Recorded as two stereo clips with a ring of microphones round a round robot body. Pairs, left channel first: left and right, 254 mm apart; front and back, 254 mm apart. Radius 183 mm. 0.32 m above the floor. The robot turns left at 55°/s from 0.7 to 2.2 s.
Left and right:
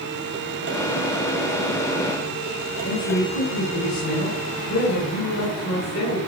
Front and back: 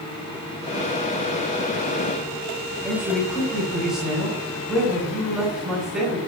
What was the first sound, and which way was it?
A man speaking, 90° left.